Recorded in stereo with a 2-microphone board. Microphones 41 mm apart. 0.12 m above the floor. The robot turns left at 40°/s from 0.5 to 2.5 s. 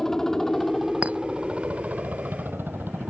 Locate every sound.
0.0 s a helicopter: 10° left; by 3.1 s 70° right
1.0 s a clink: 35° right (ahead or behind); by 1.2 s 45° right (ahead or behind)